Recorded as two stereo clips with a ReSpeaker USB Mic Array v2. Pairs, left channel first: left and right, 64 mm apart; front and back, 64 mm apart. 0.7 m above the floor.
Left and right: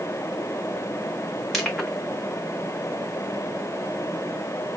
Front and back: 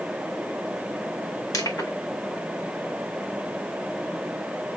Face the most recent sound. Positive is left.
turn(degrees=0)